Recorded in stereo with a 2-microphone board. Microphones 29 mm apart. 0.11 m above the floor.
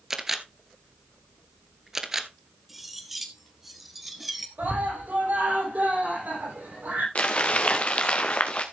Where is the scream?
75° right (ahead or behind), 6.5 m.